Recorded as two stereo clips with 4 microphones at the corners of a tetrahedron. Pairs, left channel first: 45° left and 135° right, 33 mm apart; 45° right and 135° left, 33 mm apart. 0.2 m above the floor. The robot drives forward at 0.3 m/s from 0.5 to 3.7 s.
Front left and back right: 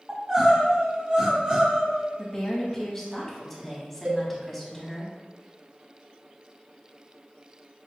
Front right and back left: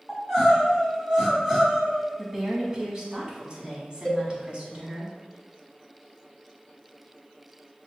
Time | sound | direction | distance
0.1 | crying | 130° right | 1.3 m
2.2 | a woman speaking | 70° left | 1.0 m
4.0 | a cowbell | 115° right | 0.8 m